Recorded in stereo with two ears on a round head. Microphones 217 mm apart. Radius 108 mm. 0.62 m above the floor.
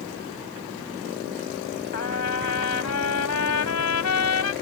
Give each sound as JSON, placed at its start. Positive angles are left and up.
{"t": 1.9, "sound": "a trumpet", "side_deg": 75}